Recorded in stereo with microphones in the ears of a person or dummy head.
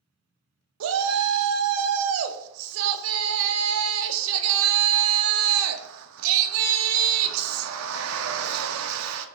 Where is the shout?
80° right, 0.5 m.